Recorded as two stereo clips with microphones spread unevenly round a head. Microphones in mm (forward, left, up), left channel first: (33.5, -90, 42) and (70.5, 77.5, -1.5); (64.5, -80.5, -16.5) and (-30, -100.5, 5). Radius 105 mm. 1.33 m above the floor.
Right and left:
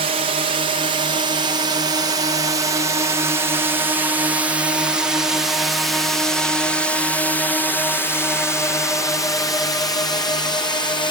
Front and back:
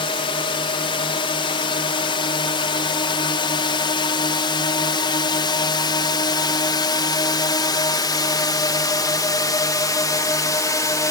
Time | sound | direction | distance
0.0 | a drone | 40° left | ?